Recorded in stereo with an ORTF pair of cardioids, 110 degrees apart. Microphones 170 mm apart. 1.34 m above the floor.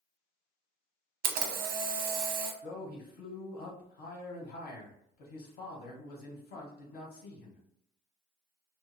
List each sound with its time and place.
1.2 s a camera shutter: 65° right, 0.6 m
2.6 s a man speaking: 65° left, 1.2 m